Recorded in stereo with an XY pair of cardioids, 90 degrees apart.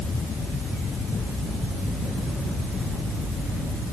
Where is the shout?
No shout in this recording.